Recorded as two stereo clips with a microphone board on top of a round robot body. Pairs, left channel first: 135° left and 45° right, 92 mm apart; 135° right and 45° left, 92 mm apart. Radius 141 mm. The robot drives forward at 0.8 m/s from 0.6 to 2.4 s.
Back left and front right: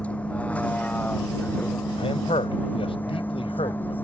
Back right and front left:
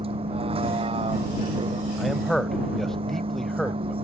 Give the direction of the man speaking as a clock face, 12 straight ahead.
7 o'clock.